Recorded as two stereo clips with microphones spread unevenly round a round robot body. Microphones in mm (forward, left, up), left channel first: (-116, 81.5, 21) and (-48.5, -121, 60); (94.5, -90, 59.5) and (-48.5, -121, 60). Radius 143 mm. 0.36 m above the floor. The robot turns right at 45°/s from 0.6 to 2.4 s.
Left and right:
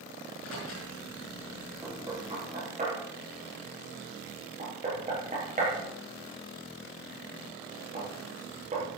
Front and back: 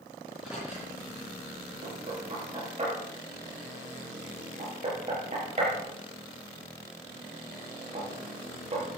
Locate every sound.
0.2 s a microwave: 110° left, 6 m; by 0.9 s 120° left, 6 m
1.8 s knocking: 155° right, 6.5 m; by 9.0 s 125° right, 6.5 m